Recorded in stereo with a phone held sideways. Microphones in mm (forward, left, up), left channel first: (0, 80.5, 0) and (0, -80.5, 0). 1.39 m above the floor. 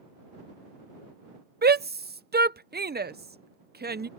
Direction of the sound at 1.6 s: 75° right (ahead or behind).